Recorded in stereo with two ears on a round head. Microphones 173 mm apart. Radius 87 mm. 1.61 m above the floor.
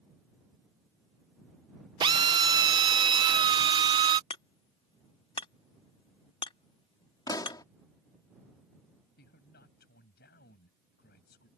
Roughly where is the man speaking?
Left.